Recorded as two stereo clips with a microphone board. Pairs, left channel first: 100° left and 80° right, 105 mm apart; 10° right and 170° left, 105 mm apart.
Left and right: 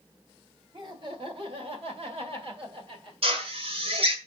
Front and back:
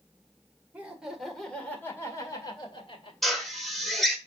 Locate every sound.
0.7 s laughter: 115° right, 2 m; by 3.1 s 45° right, 2.5 m
3.2 s a drill: 100° right, 1.5 m